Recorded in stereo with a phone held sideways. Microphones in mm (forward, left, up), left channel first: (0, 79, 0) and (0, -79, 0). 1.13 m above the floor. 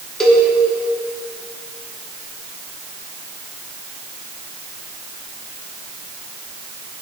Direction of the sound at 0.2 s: 5° left (ahead or behind).